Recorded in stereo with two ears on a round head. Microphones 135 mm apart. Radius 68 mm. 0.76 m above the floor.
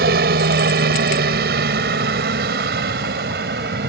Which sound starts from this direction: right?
A helicopter, at 0.0 s.